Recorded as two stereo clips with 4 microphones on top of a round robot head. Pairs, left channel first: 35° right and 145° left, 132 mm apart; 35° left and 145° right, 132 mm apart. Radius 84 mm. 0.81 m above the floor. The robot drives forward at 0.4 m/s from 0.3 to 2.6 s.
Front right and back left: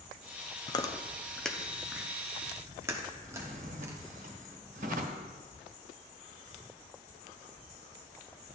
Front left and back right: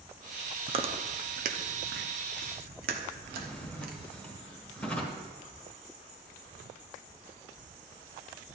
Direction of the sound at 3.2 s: 115° left.